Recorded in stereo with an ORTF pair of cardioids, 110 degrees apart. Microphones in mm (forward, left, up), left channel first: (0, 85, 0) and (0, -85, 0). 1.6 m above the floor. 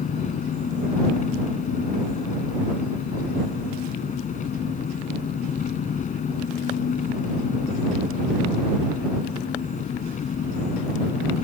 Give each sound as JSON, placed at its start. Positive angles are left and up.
{"t": 0.0, "sound": "an engine running", "azimuth_deg": 50}